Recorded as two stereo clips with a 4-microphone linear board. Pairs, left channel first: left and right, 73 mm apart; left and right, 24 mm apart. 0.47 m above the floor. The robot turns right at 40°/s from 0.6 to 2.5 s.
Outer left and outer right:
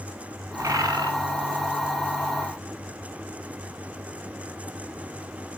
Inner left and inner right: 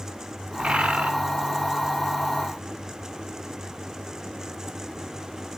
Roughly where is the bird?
Right.